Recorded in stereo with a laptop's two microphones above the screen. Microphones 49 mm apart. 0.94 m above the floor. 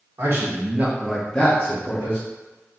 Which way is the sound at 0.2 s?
55° right (ahead or behind).